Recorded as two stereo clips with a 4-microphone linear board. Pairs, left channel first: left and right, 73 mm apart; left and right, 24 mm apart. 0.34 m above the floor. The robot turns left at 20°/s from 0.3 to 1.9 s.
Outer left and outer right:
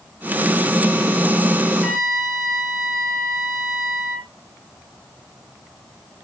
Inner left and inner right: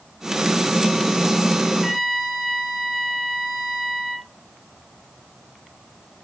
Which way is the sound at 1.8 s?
Centre (ahead or behind).